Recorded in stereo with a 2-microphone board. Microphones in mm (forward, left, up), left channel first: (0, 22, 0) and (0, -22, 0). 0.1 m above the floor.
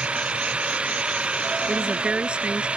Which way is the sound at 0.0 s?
25° right (ahead or behind).